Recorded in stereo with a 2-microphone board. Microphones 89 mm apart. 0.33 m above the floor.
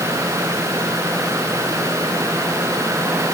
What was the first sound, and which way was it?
Only background noise.